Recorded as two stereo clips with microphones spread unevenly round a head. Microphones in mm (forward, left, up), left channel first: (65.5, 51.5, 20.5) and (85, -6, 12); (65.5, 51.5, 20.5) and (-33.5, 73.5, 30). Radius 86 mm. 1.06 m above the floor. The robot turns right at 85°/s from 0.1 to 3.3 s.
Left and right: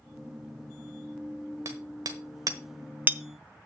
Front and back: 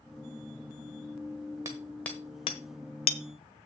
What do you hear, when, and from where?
1.6 s hammering: 130° right, 1.1 m; by 3.2 s straight ahead, 1.1 m